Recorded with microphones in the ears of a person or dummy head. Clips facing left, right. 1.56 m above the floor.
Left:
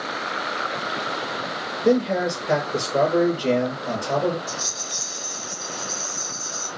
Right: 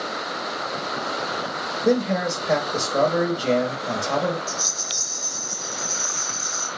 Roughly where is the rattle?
Centre.